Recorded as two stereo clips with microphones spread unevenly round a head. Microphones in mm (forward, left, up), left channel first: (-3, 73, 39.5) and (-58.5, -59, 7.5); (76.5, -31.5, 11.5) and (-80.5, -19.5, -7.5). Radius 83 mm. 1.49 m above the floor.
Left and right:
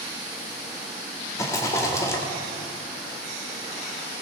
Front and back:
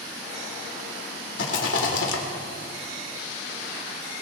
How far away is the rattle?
About 2 m.